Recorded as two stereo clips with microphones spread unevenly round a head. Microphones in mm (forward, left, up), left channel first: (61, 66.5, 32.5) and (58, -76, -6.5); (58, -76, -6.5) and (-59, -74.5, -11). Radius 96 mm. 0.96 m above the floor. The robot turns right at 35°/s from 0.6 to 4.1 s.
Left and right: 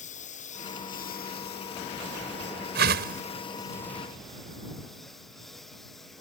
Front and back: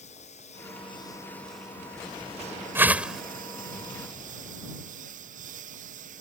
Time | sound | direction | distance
0.0 | a lawn mower | 55° left | ?
2.8 | a whoosh | 110° right | ?